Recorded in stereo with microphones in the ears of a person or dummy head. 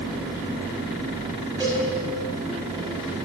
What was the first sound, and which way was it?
A cowbell, 20° right (ahead or behind).